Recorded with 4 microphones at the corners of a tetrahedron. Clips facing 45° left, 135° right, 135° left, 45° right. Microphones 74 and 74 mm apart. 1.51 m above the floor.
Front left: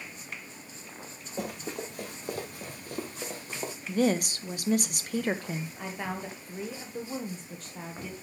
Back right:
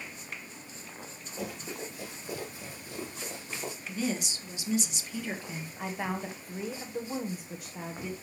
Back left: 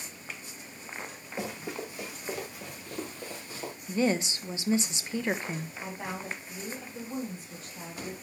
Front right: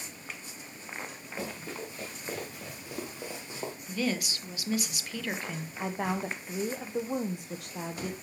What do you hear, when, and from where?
1.4 s running footsteps: 65° left, 3.5 m; by 3.7 s 10° left, 2.5 m
3.9 s a woman speaking: 75° left, 1.0 m
5.8 s a woman speaking: 50° right, 1.0 m